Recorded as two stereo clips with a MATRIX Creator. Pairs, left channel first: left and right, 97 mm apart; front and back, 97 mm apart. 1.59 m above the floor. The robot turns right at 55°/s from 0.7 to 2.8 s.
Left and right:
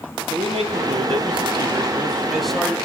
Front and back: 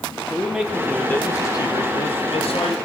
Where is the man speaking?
95° right, 1.6 m; by 2.8 s 15° left, 1.6 m.